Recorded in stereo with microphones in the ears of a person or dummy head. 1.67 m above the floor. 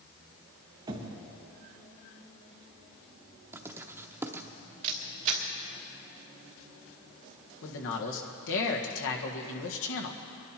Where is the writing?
15° right (ahead or behind), 0.8 m.